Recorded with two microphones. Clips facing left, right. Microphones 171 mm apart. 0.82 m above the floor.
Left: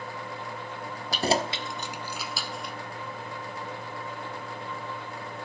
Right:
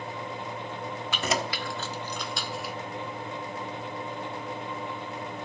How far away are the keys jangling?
About 1.0 m.